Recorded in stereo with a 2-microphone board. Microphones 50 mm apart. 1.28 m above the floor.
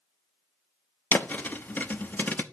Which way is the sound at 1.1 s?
40° left (ahead or behind).